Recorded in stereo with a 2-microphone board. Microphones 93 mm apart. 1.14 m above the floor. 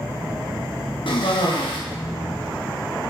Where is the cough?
70° left (ahead or behind), 1.6 m.